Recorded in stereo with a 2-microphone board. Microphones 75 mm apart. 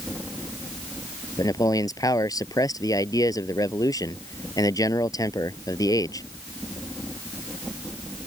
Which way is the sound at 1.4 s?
55° left (ahead or behind).